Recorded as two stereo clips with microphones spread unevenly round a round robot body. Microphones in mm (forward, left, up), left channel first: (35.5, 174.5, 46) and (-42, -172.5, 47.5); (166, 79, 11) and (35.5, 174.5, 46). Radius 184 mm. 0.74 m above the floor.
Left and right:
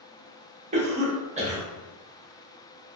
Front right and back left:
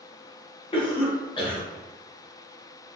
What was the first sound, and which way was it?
A cough, 40° right.